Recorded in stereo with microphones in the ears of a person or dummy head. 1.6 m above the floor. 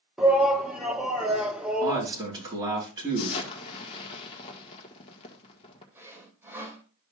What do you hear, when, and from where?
0.2 s a shout: 10° right (ahead or behind), 1.5 m
1.8 s a man speaking: 30° right (ahead or behind), 5 m
3.2 s an explosion: 25° left (ahead or behind), 1.7 m
6.0 s sawing: 20° right (ahead or behind), 2.5 m